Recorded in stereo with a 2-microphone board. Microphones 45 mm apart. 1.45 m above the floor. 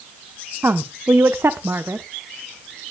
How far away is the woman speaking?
About 0.9 m.